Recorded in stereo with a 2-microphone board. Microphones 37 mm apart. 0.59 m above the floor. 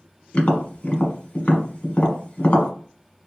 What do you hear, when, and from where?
0.3 s tapping: 40° left (ahead or behind), 1.2 m